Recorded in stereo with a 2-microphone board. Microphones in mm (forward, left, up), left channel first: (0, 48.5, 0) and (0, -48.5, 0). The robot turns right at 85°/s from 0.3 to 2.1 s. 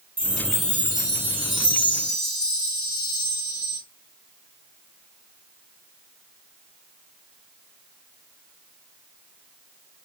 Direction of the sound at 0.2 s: 25° right.